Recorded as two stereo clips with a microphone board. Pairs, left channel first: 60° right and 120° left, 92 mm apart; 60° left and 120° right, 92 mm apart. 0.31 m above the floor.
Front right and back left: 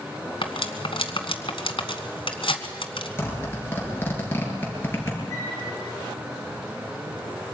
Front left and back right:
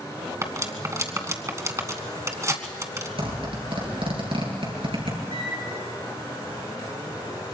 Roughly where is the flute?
Behind right.